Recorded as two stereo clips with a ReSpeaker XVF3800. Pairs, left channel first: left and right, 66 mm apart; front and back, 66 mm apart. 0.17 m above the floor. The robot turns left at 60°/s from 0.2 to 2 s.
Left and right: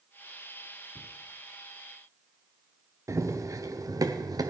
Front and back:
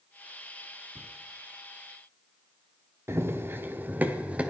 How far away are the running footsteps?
About 2.5 m.